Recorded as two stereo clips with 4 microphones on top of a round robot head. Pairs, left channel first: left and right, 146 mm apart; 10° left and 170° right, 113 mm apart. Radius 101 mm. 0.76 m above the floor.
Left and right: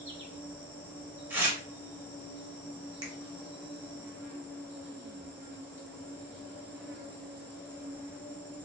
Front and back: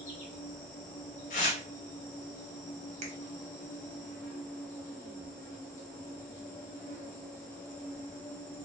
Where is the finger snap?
150° right, 0.7 m.